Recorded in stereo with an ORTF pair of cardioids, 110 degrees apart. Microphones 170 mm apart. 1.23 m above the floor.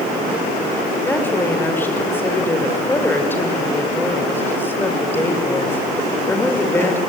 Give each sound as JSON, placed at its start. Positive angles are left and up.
{"t": 1.0, "sound": "a woman speaking", "azimuth_deg": 10, "distance_m": 6.0}